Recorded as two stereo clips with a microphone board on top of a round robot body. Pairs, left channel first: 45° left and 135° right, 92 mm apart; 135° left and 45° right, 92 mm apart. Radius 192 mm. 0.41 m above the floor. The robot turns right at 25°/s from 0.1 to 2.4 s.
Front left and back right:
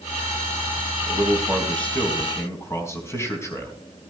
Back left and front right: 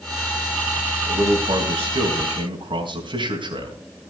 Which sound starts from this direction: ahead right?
A man speaking, at 1.1 s.